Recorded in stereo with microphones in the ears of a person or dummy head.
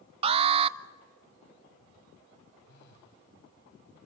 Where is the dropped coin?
No dropped coin in this recording.